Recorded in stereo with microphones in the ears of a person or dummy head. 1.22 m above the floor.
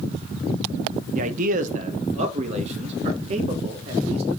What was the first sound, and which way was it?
A man speaking, 40° right (ahead or behind).